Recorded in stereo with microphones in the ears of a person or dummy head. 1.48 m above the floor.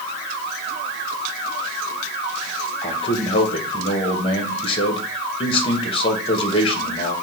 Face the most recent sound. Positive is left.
turn(degrees=30)  # may be behind; listen again after turning